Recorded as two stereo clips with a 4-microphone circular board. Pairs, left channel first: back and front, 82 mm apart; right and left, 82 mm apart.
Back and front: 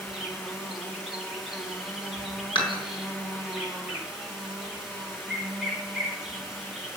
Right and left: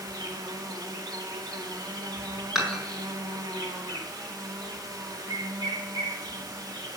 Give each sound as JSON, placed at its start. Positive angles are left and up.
{"t": 0.0, "sound": "an insect", "azimuth_deg": 85, "distance_m": 2.0}
{"t": 2.5, "sound": "dishes clattering", "azimuth_deg": 175, "distance_m": 5.0}